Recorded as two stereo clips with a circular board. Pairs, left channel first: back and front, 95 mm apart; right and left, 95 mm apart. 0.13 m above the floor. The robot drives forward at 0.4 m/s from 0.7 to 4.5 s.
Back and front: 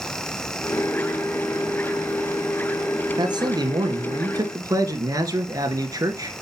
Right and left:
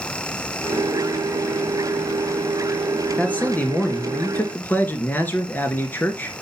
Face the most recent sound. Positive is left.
turn(degrees=-30)